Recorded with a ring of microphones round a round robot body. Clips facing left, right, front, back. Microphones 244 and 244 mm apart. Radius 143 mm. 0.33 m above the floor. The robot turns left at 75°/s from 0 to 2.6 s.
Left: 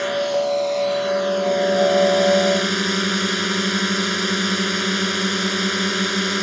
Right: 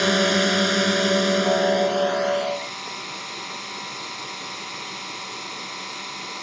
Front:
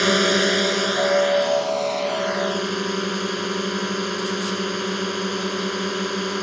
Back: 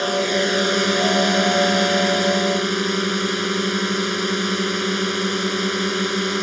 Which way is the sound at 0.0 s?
55° right.